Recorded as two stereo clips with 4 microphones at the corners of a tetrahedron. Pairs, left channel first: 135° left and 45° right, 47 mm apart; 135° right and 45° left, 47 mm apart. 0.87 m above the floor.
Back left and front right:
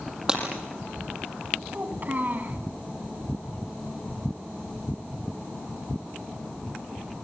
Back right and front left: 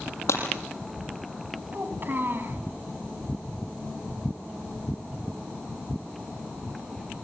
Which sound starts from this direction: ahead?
A child speaking, at 1.7 s.